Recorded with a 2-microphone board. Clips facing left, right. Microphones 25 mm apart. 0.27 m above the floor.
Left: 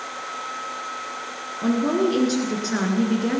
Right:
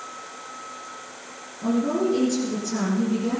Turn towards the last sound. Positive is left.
turn(degrees=65)  # may be behind; listen again after turning